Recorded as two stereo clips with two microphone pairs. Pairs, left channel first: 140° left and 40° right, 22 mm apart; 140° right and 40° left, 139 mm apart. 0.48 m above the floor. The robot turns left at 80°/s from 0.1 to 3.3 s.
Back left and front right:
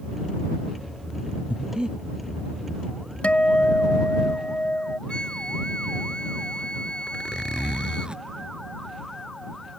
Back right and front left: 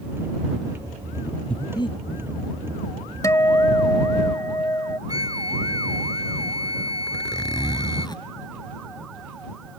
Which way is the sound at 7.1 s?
80° right.